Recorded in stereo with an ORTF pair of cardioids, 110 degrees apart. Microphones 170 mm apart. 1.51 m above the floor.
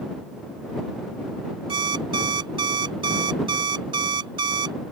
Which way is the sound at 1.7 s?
30° right.